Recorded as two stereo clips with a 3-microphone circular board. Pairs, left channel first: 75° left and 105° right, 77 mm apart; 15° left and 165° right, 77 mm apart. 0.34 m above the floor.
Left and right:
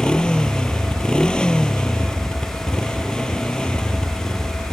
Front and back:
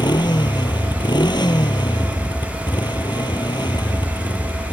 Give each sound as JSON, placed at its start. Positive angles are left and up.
{"t": 0.0, "sound": "a motorcycle", "azimuth_deg": 0}